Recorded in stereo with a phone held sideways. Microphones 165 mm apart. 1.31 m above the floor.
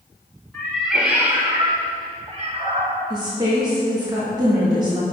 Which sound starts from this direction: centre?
A cat meowing, at 0.5 s.